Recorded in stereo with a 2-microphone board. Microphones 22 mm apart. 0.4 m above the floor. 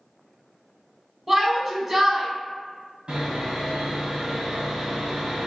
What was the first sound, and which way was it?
A shout, 15° right (ahead or behind).